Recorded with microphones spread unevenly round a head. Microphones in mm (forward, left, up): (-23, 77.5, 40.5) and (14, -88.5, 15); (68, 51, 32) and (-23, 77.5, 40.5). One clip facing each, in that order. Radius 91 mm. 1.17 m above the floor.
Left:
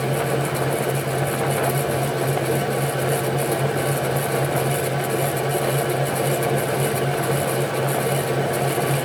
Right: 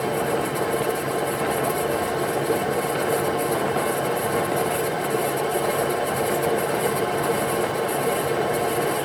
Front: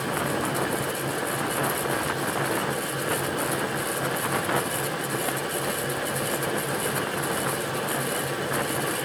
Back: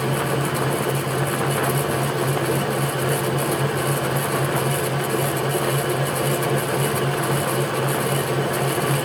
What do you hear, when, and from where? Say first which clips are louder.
0.0 s a fan: left 1 dB, back 4 dB; 155° left, 1.7 m